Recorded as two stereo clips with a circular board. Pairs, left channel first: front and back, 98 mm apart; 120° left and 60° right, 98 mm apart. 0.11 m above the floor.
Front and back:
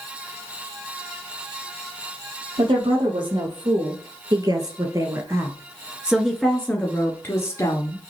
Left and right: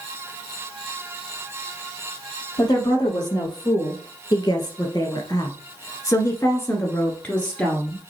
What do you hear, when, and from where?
2.6 s a woman speaking: 165° left, 3 m; by 8.1 s 35° left, 2.0 m